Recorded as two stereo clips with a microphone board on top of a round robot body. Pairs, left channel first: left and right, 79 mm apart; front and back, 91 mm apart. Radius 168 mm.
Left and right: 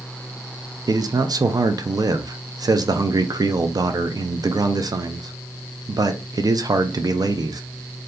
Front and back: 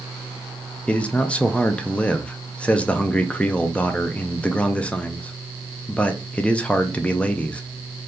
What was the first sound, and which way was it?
A man speaking, 75° right.